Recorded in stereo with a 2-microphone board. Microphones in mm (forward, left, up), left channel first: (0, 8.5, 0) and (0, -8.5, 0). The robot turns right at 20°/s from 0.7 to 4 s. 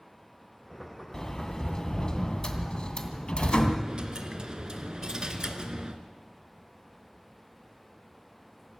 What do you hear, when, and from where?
1.1 s a sliding door: 30° left, 2 m; by 3.7 s 85° left, 2 m
3.8 s a dropped coin: 55° right (ahead or behind), 1.6 m; by 6.0 s 50° right (ahead or behind), 1.6 m